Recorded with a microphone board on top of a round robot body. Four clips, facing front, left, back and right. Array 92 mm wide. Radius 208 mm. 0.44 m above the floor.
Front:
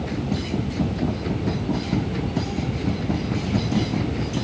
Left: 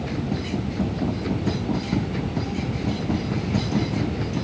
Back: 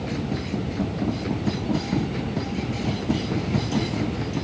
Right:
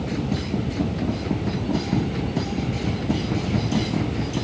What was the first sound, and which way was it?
Only background noise.